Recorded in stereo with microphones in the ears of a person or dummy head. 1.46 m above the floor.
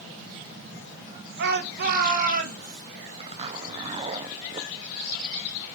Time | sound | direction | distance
1.4 | a shout | 55° right (ahead or behind) | 1.4 m
3.2 | a zipper | 30° right (ahead or behind) | 0.9 m